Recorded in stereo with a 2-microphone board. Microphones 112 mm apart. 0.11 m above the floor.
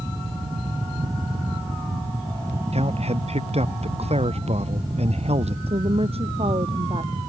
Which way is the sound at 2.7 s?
70° right (ahead or behind).